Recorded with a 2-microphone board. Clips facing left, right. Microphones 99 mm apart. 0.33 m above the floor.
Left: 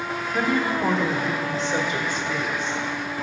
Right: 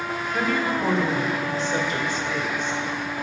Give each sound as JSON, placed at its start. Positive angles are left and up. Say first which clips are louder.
{"t": 0.3, "sound": "a woman speaking", "louder": "left 1 dB", "side_deg": 10, "distance_m": 1.5}